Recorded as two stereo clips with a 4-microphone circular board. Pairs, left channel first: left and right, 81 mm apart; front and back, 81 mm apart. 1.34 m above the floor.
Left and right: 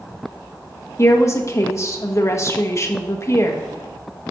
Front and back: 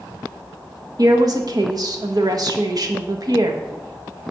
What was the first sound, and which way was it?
A woman speaking, 140° left.